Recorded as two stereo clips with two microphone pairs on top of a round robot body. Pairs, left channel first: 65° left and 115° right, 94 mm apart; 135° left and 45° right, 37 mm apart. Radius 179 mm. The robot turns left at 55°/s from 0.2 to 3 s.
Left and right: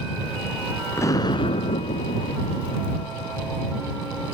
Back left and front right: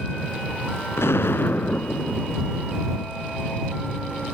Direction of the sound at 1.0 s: 130° left.